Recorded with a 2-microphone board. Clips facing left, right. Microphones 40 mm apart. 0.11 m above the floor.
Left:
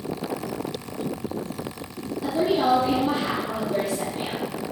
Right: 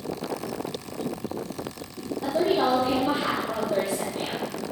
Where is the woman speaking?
15° right (ahead or behind), 2.5 m.